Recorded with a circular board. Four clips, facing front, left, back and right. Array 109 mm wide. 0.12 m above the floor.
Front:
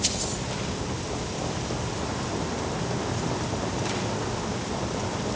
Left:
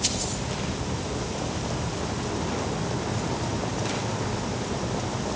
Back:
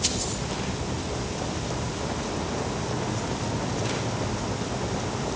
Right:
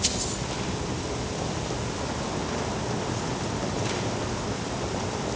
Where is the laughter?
No laughter in this recording.